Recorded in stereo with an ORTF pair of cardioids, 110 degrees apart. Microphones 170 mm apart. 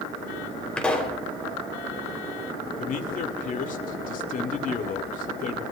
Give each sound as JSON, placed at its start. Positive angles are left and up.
{"t": 0.8, "sound": "a pop", "azimuth_deg": 5, "distance_m": 3.5}
{"t": 2.8, "sound": "a man speaking", "azimuth_deg": 55, "distance_m": 2.0}